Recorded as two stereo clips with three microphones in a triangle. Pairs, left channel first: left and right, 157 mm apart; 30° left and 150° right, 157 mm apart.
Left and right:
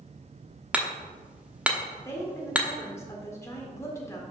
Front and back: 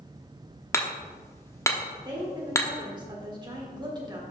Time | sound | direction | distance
0.7 | hammering | 20° right | 0.9 m
2.0 | a woman speaking | 160° left | 1.6 m